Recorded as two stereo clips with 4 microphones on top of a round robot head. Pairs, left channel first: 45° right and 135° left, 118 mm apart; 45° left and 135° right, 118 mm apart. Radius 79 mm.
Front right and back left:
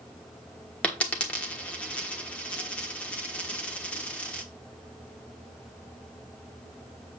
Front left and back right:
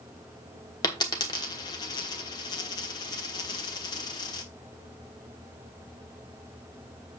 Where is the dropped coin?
25° left, 1.1 m.